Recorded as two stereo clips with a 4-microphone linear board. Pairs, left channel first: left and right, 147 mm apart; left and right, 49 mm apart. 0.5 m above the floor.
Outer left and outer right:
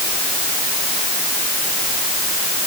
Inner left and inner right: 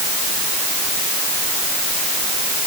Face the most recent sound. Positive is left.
No sound to turn to.